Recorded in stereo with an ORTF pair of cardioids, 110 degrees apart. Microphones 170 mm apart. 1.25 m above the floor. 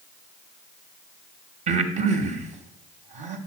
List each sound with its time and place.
1.7 s breathing: 45° right, 1.2 m